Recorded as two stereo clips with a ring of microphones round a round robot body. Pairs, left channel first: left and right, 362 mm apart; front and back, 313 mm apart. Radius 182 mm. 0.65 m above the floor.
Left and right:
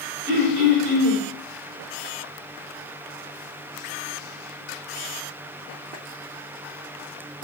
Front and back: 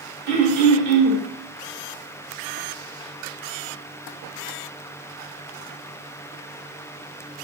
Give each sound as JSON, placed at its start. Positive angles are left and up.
{"t": 0.3, "sound": "throat clearing", "azimuth_deg": -140, "distance_m": 1.2}